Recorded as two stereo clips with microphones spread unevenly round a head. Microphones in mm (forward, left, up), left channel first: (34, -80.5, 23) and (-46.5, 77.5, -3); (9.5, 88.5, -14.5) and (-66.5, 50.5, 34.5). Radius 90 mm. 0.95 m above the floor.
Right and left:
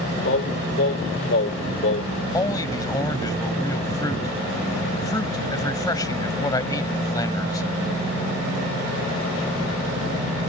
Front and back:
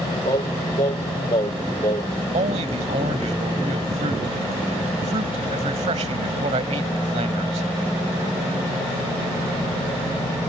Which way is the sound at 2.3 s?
135° right.